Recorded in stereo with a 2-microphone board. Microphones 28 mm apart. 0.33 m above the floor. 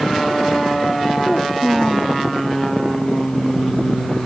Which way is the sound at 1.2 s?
Centre (ahead or behind).